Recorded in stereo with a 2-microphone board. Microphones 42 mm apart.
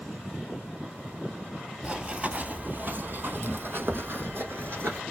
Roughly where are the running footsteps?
Centre.